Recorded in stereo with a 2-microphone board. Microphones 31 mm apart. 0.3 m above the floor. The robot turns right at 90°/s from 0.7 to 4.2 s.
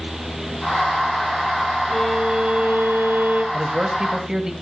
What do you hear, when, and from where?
1.9 s a violin: 170° left, 6 m; by 3.4 s 55° right, 6 m
3.5 s a man speaking: 85° right, 1.7 m; by 4.5 s 25° right, 1.7 m